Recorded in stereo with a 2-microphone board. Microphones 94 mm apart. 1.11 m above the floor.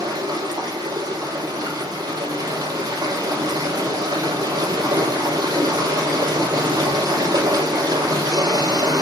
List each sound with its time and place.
0.0 s running water: 45° right (ahead or behind), 5 m